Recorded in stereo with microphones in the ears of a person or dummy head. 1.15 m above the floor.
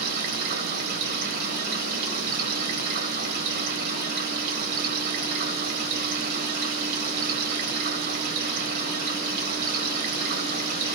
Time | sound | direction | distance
0.0 | running water | 50° right (ahead or behind) | 1.4 m